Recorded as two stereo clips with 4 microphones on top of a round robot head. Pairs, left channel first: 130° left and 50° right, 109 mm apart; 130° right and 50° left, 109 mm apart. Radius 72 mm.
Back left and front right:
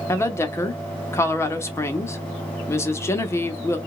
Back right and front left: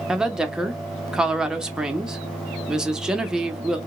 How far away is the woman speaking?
About 0.8 m.